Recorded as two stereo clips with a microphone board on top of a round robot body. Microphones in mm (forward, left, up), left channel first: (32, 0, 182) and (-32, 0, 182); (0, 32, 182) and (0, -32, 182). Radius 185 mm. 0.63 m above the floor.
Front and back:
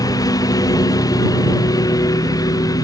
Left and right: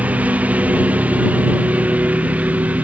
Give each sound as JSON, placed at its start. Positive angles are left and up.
{"t": 0.0, "sound": "a lawn mower", "azimuth_deg": -25}